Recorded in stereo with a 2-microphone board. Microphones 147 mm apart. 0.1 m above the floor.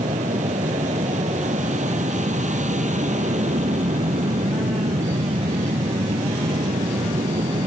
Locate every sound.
0.0 s an aircraft: 60° right (ahead or behind)